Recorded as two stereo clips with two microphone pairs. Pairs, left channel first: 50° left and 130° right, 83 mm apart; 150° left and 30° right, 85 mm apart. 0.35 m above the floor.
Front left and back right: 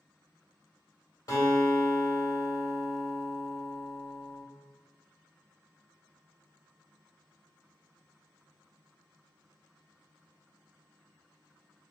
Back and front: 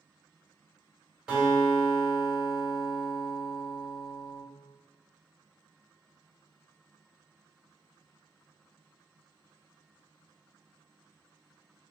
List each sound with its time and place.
1.3 s a guitar: 50° left, 1.6 m